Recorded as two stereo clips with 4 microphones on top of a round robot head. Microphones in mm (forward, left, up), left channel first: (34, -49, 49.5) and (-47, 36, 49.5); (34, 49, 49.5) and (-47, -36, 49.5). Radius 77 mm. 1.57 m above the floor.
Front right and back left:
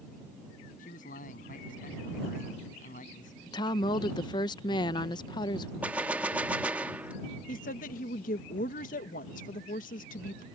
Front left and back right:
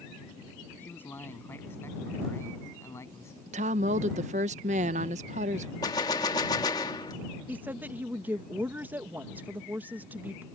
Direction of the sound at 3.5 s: 100° right.